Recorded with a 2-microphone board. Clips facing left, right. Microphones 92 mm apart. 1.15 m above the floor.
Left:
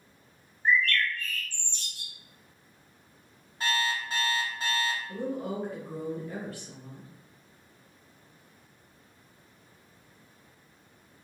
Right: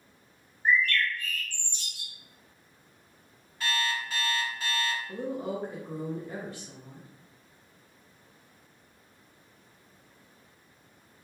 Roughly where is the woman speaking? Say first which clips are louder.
Even; right.